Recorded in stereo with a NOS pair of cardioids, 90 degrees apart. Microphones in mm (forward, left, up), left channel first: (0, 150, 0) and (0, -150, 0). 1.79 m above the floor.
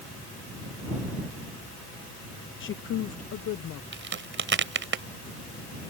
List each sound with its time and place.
2.6 s a woman speaking: 45° left; by 3.8 s 65° left
3.9 s a crack: 40° right